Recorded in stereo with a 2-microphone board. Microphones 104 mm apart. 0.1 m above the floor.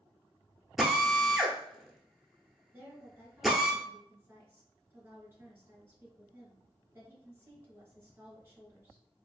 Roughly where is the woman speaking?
Right.